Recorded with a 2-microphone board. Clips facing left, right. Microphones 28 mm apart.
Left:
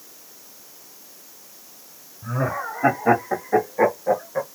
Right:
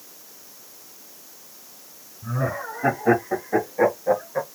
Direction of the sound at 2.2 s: 30° left (ahead or behind).